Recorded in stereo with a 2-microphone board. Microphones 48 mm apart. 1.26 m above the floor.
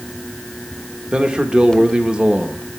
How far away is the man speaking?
About 1.3 m.